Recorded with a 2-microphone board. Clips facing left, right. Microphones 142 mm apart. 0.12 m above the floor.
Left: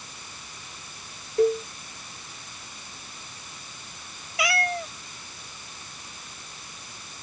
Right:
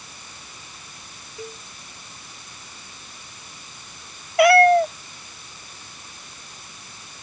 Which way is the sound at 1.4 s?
60° left (ahead or behind).